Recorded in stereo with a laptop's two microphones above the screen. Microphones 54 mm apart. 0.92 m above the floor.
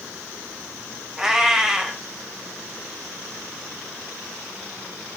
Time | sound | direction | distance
1.2 | a cat meowing | 10° right (ahead or behind) | 0.7 m